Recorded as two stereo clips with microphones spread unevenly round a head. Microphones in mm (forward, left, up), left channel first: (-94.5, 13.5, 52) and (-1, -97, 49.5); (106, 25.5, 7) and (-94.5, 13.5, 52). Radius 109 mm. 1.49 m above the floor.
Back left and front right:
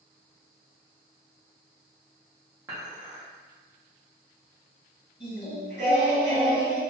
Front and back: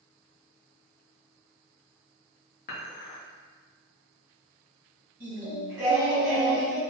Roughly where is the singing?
Left.